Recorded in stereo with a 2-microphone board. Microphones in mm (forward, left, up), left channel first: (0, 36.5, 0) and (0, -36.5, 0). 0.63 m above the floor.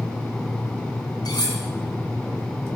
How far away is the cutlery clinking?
About 3.5 m.